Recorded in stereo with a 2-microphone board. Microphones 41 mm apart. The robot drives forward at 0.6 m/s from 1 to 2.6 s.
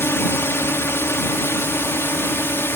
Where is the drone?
90° left; by 2.8 s 75° left (ahead or behind).